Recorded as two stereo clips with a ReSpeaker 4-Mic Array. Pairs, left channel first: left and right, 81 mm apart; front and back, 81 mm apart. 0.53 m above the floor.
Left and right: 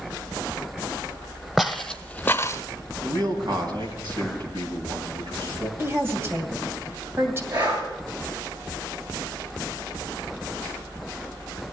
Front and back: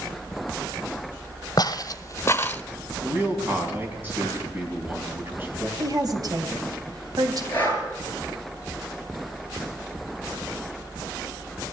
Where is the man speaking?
115° right, 4 m.